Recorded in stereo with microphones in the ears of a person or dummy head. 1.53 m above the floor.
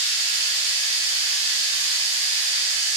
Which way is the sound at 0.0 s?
35° right (ahead or behind).